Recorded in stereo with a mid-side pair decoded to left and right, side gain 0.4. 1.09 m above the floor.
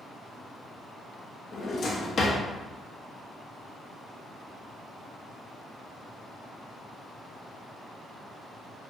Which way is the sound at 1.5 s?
50° left.